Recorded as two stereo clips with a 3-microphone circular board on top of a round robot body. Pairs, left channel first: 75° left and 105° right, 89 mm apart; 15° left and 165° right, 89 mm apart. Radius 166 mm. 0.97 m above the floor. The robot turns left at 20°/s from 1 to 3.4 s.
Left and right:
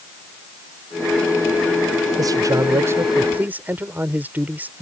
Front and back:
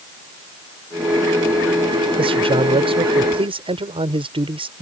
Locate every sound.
2.2 s a man speaking: 150° right; by 4.8 s 175° right